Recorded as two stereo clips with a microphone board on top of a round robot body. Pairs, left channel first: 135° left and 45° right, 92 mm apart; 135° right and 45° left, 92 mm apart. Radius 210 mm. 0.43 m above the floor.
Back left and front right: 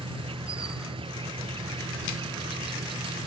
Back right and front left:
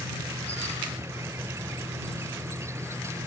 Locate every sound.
0.0 s an insect: 15° right